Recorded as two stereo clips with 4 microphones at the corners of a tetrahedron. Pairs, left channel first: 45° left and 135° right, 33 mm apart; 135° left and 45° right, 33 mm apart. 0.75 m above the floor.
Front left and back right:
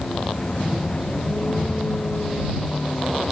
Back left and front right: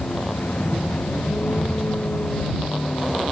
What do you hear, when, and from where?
0.0 s a vehicle: 105° left